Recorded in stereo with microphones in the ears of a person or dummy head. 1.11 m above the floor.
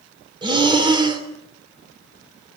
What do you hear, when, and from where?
0.4 s breathing: 20° right (ahead or behind), 3 m